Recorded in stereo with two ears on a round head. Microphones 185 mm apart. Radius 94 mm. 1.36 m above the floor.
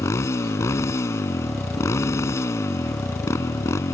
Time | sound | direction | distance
0.0 | a motorcycle | 15° left (ahead or behind) | ?